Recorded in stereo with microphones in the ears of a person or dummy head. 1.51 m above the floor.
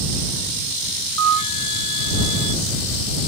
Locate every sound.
1.2 s a flute: 75° right (ahead or behind)